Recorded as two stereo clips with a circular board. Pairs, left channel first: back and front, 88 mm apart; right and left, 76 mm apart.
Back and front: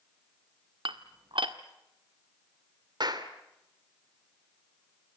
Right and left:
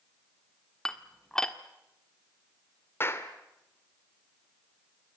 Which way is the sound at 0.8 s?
10° right.